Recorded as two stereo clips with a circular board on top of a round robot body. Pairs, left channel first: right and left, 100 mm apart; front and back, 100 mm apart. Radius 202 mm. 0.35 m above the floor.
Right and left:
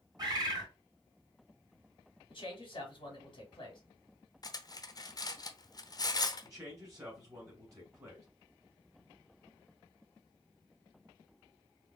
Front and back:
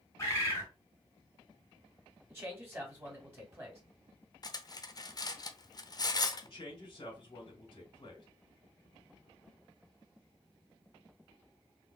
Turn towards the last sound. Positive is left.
turn(degrees=35)